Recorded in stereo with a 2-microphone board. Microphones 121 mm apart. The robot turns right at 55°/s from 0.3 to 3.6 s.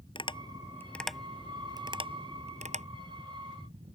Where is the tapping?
40° left (ahead or behind); by 2.9 s 70° right (ahead or behind).